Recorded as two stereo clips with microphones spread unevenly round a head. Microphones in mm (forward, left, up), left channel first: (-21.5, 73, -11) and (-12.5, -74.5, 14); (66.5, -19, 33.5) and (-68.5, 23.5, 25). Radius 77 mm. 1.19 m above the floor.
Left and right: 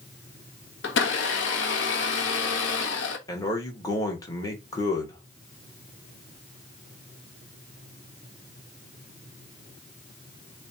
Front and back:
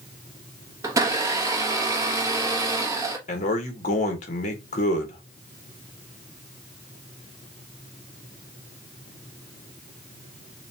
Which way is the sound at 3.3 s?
25° left.